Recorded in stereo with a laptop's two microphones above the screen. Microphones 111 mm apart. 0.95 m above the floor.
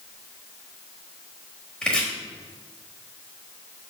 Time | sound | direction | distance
1.8 | chopping | 10° left (ahead or behind) | 0.8 m